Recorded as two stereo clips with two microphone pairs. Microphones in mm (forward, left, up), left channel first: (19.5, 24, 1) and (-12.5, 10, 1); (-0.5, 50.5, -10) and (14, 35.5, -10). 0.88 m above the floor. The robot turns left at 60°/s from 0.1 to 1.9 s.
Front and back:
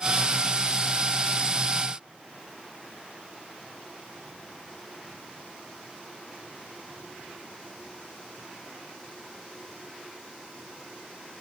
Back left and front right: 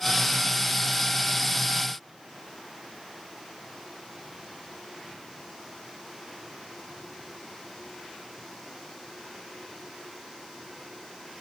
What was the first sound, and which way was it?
Only background noise.